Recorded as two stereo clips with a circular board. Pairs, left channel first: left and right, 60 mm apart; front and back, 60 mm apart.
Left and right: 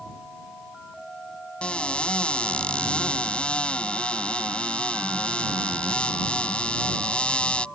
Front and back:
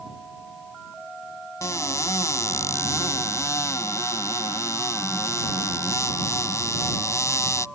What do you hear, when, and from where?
1.6 s a cupboard door: 20° left